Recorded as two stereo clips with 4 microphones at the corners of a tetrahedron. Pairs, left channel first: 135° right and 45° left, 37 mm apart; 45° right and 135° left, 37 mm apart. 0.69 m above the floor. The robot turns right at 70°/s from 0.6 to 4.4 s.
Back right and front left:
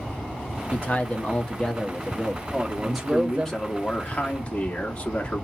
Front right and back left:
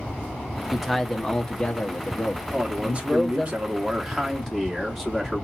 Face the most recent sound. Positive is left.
turn(degrees=-130)